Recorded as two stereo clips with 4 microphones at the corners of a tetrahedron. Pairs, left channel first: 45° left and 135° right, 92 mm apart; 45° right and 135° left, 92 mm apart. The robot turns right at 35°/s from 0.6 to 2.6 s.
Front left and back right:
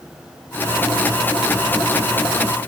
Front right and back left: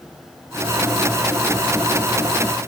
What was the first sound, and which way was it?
Only background noise.